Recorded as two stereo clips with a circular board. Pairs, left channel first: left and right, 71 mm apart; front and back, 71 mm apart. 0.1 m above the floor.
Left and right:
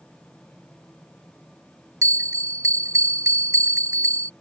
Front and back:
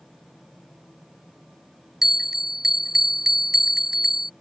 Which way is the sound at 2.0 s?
100° right.